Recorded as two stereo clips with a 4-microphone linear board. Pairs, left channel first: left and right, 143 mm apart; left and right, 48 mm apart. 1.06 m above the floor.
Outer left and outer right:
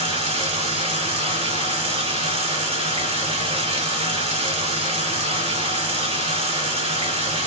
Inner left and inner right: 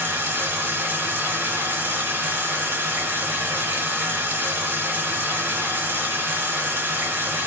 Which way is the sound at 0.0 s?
45° right (ahead or behind).